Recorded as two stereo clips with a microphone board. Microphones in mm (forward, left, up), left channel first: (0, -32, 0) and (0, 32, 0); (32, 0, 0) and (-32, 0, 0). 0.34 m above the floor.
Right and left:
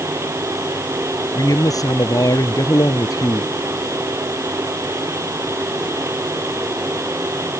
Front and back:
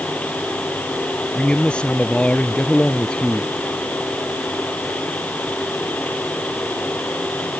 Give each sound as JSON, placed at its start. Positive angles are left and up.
{"t": 1.4, "sound": "a man speaking", "azimuth_deg": -75}